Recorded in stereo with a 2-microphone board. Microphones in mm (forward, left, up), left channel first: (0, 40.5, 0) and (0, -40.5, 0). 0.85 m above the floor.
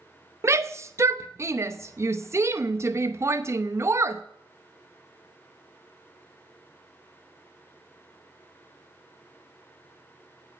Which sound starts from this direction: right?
A shout, at 0.4 s.